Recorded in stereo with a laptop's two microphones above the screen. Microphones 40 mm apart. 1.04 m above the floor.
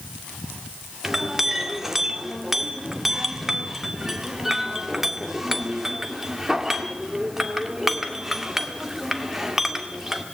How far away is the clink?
About 1.9 m.